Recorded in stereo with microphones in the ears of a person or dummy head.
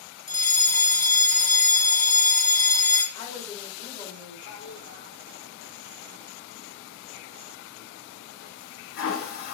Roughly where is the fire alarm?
Centre.